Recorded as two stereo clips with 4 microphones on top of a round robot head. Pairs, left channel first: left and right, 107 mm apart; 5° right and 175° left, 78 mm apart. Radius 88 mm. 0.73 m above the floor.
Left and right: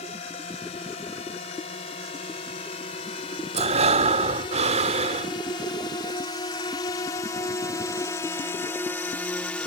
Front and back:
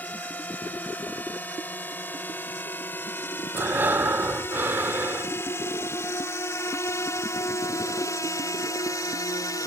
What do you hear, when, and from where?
0.0 s a drone: 65° left; by 9.7 s 15° left
3.5 s breathing: 110° right